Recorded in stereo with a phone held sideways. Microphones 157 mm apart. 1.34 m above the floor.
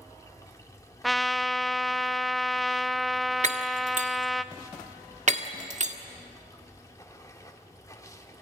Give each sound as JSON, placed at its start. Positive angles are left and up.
{"t": 0.0, "sound": "running water", "side_deg": 20, "distance_m": 1.5}
{"t": 1.0, "sound": "a trumpet", "side_deg": 0, "distance_m": 0.5}
{"t": 3.4, "sound": "breaking glass", "side_deg": -50, "distance_m": 1.5}